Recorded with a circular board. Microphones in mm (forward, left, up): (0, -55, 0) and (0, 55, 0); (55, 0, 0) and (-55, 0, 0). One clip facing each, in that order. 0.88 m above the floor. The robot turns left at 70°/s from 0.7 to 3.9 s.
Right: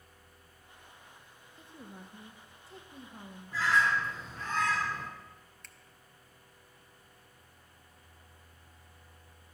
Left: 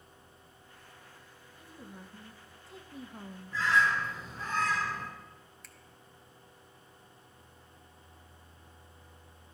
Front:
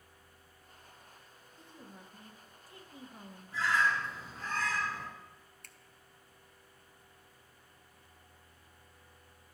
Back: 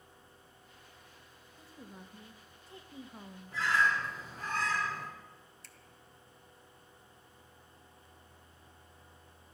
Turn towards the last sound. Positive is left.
turn(degrees=5)